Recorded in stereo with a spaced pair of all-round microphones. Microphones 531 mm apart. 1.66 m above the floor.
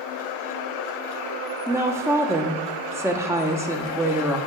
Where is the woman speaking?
5° right (ahead or behind), 0.8 m.